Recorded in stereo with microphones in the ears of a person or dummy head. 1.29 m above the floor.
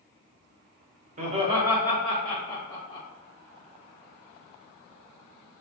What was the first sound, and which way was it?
Laughter, 45° right (ahead or behind).